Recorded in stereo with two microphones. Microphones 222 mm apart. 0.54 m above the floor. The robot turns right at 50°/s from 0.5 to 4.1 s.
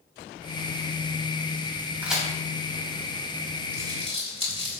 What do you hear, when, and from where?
2.0 s a crack: 10° right (ahead or behind), 3.5 m; by 2.3 s 5° left (ahead or behind), 3.5 m
3.7 s crumpling: 45° left (ahead or behind), 3.5 m; by 4.8 s 25° left (ahead or behind), 3.5 m